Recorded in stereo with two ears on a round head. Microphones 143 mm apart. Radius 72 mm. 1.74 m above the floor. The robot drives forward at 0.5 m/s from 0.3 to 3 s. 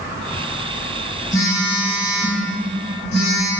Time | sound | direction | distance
1.3 | a phone buzzing | 55° left (ahead or behind) | 1.3 m